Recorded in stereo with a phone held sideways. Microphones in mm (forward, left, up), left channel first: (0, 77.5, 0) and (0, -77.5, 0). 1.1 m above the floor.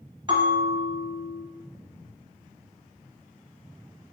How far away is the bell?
About 1.2 m.